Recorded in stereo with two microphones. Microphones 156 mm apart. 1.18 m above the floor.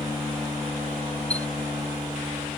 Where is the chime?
45° left (ahead or behind).